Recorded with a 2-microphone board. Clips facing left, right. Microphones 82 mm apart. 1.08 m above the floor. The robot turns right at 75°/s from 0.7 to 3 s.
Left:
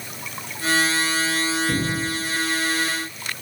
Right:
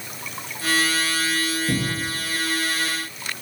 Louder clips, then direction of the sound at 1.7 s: Left 1 dB; 65° right (ahead or behind).